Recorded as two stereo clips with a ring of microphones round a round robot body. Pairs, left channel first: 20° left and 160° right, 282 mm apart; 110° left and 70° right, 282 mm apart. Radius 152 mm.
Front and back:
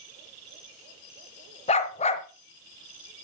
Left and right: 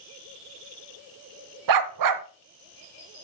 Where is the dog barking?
45° right, 0.7 m.